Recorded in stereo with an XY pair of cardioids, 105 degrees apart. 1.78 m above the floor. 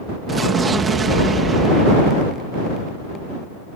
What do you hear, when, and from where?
0.3 s an explosion: 35° right